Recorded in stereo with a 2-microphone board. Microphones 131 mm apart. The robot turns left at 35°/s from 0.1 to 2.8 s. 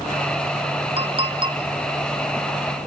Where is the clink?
45° right (ahead or behind), 0.9 m; by 1.6 s 35° right (ahead or behind), 0.9 m.